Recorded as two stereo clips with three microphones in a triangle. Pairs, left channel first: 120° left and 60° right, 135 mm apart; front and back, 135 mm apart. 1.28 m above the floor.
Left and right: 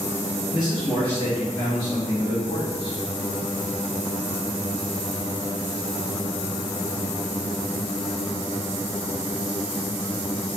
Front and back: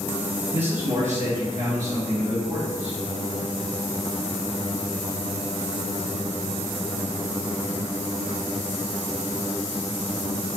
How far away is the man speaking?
About 0.9 m.